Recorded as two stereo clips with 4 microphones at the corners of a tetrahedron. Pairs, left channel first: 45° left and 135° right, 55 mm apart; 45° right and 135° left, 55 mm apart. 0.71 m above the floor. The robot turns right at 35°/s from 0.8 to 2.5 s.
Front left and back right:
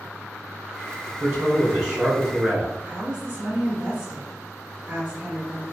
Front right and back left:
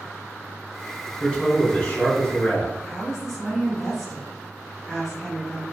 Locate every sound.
1.2 s a man speaking: 110° right, 1.2 m; by 2.8 s 65° right, 1.2 m
2.9 s a woman speaking: 130° right, 0.7 m